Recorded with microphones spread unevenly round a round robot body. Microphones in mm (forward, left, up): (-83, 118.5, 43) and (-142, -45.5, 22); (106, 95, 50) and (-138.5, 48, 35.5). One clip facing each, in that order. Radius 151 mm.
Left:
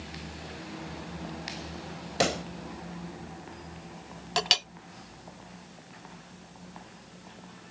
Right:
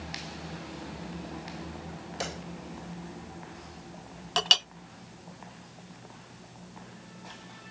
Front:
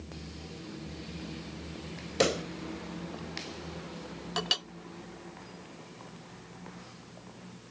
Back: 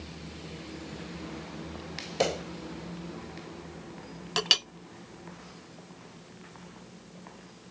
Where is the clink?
155° left.